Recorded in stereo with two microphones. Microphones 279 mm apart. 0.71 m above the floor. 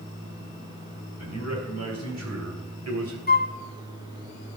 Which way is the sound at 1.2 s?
85° right.